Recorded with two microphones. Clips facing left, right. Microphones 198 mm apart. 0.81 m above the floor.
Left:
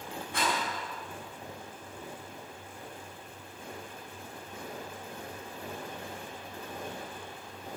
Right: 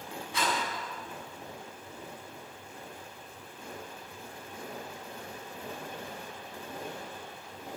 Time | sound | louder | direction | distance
0.3 | a rattle | even | 55° left (ahead or behind) | 7 m